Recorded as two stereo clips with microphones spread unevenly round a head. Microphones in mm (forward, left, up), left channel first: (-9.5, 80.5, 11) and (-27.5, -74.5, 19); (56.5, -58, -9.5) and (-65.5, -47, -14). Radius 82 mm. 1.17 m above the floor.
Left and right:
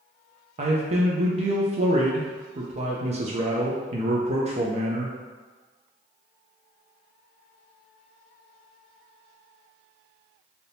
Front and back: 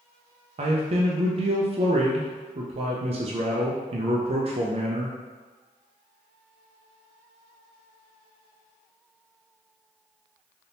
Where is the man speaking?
145° right, 0.5 m.